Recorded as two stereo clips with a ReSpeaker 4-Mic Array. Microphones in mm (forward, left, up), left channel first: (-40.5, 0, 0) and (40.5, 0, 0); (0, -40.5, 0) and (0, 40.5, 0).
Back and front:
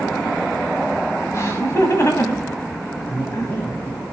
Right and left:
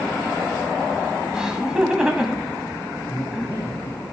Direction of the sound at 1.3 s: 165° left.